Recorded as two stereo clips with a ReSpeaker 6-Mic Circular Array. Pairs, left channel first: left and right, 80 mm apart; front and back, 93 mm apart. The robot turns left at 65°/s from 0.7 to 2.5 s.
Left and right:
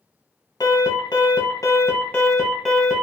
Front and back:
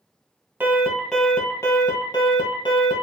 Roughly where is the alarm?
Behind left.